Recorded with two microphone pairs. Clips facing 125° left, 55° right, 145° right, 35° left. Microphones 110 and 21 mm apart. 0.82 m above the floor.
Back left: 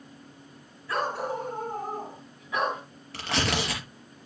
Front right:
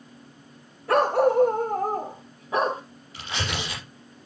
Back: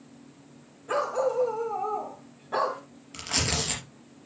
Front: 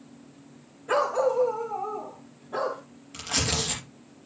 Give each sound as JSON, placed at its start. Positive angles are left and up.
{"t": 0.9, "sound": "a dog barking", "azimuth_deg": -40, "distance_m": 2.0}
{"t": 3.1, "sound": "tearing paper", "azimuth_deg": 135, "distance_m": 4.5}